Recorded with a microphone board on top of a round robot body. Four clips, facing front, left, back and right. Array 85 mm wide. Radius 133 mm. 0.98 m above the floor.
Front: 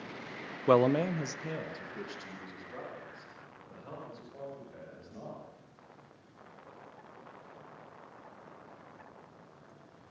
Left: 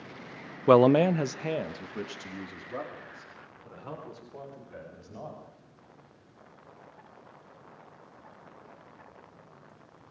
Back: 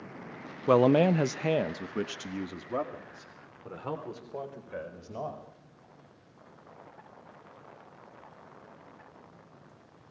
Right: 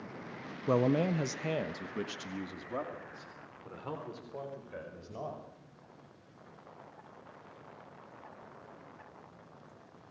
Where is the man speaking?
85° left, 0.6 m; by 5.4 s 170° right, 5.5 m.